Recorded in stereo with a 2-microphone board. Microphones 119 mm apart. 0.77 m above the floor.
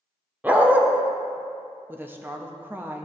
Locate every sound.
0.4 s a dog barking: 15° right (ahead or behind), 0.8 m
1.9 s a woman speaking: 15° right (ahead or behind), 0.6 m